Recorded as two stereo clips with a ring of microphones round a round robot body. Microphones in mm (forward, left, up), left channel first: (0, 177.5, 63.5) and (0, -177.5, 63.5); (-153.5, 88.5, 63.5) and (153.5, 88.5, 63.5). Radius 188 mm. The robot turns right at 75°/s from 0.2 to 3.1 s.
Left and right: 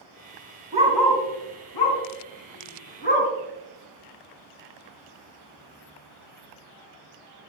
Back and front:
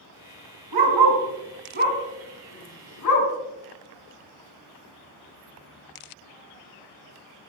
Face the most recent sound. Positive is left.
turn(degrees=160)